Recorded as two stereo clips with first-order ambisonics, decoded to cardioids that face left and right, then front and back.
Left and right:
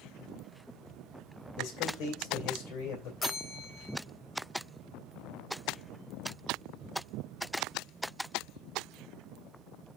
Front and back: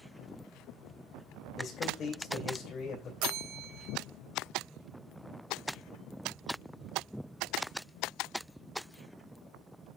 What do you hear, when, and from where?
1.6 s a man speaking: 55° left, 2.5 m
3.2 s a bell: 165° left, 1.2 m